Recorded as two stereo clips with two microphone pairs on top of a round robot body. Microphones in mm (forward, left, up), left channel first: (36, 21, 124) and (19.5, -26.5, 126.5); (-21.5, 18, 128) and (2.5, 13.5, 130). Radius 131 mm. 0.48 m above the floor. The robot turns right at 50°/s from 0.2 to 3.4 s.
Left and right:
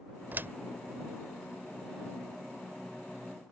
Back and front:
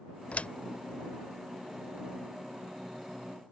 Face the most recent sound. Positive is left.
turn(degrees=-10)